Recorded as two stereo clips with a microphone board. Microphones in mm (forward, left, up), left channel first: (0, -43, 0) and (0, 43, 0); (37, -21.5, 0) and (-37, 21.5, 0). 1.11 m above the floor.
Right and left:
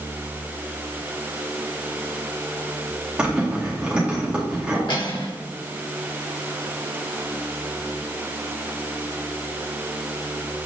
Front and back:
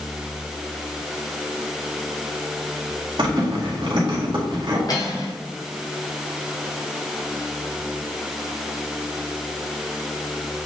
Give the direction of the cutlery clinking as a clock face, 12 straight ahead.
2 o'clock.